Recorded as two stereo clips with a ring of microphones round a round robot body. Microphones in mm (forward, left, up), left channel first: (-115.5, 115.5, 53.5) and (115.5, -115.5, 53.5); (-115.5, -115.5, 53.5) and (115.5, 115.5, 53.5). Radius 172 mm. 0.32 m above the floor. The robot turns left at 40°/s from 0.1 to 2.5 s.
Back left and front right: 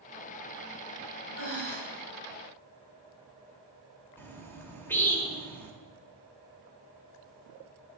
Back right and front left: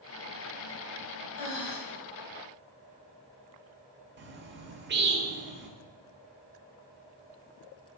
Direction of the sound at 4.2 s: 55° left.